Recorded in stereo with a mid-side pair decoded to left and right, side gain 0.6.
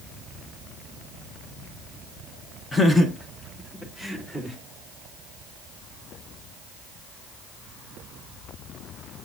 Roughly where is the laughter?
Ahead.